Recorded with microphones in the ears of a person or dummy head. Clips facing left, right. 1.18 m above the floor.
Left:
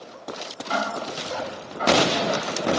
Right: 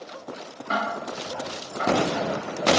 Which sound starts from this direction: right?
Ticking, at 0.7 s.